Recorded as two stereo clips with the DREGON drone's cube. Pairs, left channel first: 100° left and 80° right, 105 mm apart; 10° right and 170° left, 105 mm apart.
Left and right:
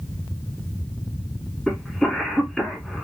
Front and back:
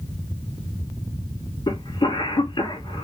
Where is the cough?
15° left, 1.9 m.